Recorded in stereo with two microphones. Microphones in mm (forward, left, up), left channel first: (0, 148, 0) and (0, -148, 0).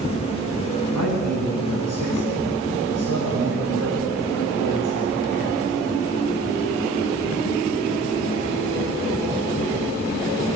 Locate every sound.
0.9 s a man speaking: 75° left (ahead or behind), 9.5 m